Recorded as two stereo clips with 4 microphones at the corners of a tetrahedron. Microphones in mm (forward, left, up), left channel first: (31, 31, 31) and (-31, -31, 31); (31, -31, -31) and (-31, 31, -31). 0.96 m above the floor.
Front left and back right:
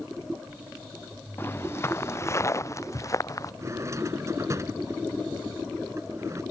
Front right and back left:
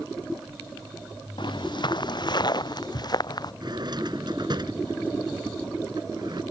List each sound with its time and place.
1.4 s footsteps: 15° right; by 3.5 s 5° right
3.6 s a drawer: 170° left